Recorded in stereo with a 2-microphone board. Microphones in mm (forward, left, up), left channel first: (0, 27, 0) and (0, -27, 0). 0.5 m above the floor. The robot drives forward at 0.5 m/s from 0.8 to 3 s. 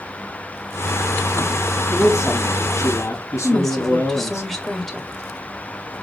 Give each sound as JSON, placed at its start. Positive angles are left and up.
{"t": 1.9, "sound": "a man speaking", "side_deg": 60, "distance_m": 4.5}
{"t": 3.4, "sound": "a woman speaking", "side_deg": 5, "distance_m": 2.0}